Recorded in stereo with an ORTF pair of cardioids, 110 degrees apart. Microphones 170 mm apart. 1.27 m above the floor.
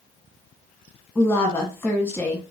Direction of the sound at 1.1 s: 10° left.